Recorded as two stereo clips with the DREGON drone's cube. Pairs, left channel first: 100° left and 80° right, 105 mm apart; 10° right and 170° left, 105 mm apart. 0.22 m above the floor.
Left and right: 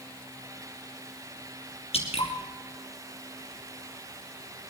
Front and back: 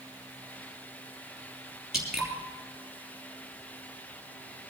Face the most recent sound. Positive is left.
turn(degrees=85)